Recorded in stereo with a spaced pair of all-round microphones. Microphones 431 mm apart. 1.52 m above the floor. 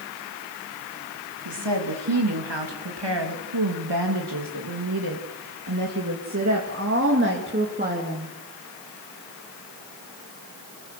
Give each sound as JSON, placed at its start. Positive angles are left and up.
{"t": 1.4, "sound": "a woman speaking", "side_deg": -75, "distance_m": 3.0}